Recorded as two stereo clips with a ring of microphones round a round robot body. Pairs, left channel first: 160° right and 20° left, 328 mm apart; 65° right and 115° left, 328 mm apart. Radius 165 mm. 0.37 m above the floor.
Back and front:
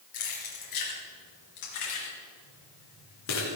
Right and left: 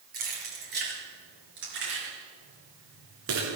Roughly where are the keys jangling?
Behind.